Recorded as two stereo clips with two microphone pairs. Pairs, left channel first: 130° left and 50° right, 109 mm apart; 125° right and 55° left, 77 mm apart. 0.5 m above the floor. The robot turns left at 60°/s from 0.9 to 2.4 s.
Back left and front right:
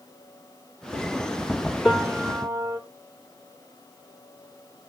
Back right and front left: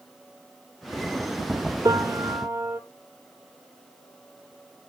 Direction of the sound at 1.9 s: 40° left.